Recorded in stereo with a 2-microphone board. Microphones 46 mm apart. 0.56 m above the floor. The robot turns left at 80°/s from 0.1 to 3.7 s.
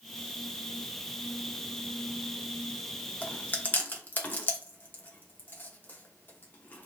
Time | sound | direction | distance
3.2 | chewing | 25° left (ahead or behind) | 0.8 m